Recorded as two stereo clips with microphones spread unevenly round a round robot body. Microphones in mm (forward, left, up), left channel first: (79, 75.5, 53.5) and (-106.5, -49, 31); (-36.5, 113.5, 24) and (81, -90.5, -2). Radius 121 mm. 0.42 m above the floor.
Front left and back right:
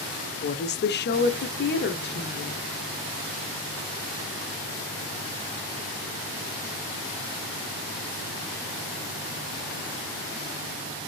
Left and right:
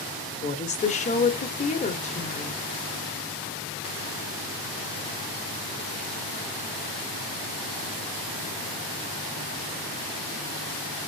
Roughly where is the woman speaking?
Ahead left.